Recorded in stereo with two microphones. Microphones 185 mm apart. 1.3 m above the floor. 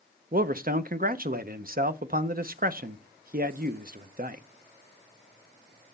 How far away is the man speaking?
About 0.7 m.